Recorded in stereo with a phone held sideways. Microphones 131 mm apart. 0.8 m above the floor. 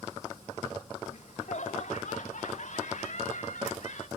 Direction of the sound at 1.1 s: 65° left (ahead or behind).